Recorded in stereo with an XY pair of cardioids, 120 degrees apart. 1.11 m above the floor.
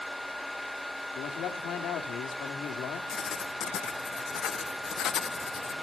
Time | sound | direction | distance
0.0 | a fan | straight ahead | 0.9 m
1.1 | a man speaking | 65° left | 3.5 m
3.1 | writing | 55° left | 0.5 m